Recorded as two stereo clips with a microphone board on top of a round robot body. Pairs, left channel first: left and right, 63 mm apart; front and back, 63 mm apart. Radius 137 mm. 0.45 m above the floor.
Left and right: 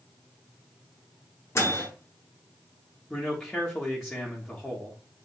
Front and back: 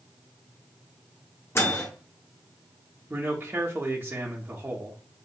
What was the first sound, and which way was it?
A microwave, 45° left.